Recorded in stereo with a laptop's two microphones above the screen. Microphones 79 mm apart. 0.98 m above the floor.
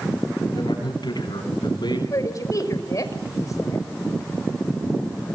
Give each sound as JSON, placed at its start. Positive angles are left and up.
{"t": 0.5, "sound": "a man speaking", "side_deg": 70, "distance_m": 9.5}
{"t": 2.1, "sound": "a woman speaking", "side_deg": 45, "distance_m": 5.5}